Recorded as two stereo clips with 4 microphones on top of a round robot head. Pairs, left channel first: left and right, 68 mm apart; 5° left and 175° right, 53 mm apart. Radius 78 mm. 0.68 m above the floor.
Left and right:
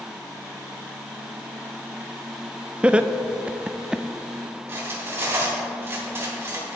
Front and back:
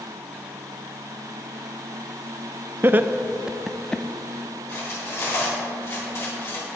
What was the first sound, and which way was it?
Laughter, 155° right.